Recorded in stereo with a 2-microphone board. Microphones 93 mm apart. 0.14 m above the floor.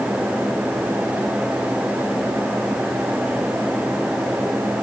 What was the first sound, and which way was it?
Only background noise.